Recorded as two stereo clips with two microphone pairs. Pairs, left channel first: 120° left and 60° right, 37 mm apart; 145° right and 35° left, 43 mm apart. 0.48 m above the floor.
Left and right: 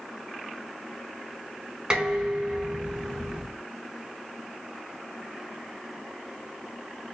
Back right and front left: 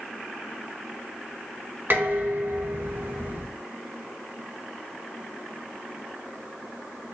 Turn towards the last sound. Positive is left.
turn(degrees=5)